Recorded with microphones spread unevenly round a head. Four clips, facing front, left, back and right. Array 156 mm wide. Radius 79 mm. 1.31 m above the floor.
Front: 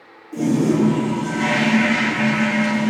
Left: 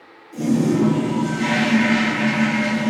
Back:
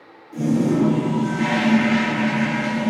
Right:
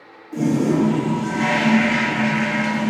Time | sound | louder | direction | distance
0.3 | a toilet flushing | even, front 1 dB | 60° right | 3.5 m